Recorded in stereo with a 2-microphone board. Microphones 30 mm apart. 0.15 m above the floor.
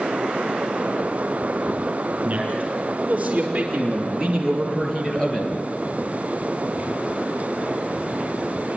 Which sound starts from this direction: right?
A man speaking, at 2.2 s.